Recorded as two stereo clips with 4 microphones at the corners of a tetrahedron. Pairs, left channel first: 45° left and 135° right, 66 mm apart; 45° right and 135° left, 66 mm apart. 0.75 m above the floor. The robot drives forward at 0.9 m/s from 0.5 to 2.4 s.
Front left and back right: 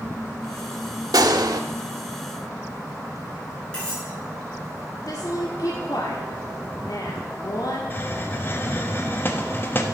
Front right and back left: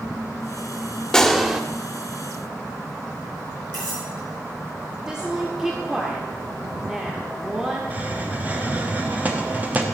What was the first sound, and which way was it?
A gunshot, 125° right.